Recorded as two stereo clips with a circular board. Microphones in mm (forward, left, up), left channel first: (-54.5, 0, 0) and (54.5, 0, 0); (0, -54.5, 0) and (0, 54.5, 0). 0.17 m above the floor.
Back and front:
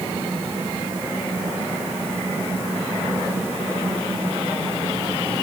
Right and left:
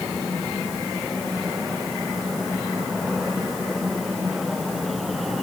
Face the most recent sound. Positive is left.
No sound to turn to.